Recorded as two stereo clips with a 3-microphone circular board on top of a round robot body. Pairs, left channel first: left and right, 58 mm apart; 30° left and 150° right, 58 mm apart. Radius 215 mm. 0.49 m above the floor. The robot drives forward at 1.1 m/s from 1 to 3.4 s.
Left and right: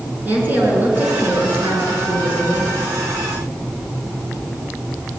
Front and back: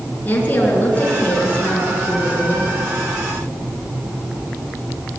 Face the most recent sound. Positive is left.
turn(degrees=-45)